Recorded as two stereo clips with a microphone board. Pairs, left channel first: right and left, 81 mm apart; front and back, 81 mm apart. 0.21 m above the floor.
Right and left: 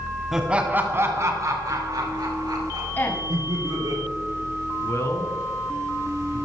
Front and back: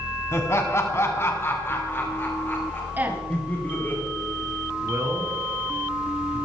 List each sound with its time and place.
0.3 s laughter: 5° left, 1.5 m; by 4.0 s 65° left, 5 m
3.0 s a woman speaking: 130° right, 1.7 m
4.8 s a man speaking: 135° right, 1.8 m